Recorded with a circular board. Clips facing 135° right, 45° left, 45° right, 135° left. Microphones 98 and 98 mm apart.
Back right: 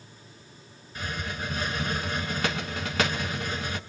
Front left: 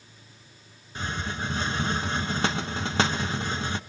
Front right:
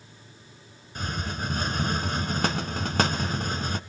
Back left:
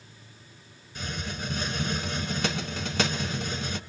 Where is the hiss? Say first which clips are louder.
Front left 2 dB, front right 3 dB; 10° right, 1.1 m.